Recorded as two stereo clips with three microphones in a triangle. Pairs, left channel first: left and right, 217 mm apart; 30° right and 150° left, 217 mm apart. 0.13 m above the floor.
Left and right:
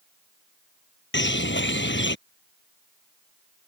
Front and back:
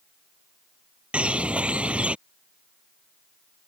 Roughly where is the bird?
Ahead left.